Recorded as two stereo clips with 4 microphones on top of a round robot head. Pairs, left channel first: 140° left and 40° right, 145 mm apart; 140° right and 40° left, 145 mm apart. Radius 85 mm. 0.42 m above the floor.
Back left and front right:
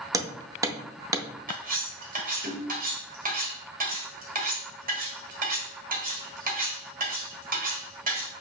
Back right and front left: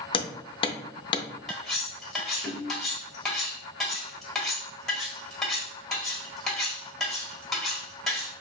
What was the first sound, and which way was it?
Hammering, 100° right.